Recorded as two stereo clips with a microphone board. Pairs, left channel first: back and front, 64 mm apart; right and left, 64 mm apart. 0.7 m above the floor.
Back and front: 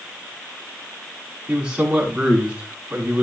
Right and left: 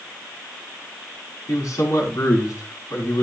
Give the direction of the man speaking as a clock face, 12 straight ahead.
2 o'clock.